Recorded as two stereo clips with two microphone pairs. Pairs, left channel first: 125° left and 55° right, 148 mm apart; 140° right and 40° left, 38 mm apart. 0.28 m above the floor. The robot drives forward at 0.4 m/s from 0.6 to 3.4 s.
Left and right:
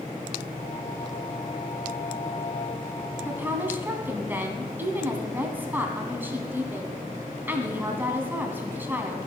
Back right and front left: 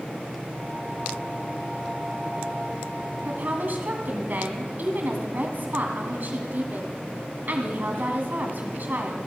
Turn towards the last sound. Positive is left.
turn(degrees=20)